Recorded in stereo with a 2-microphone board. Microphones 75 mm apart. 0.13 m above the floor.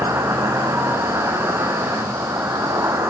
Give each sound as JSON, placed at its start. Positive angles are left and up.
{"t": 0.0, "sound": "an insect", "side_deg": -40, "distance_m": 1.1}